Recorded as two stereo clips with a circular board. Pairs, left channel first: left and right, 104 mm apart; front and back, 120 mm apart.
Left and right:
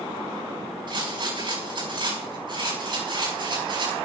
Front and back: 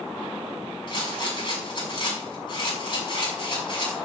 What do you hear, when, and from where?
0.9 s a rattle: 50° right, 6 m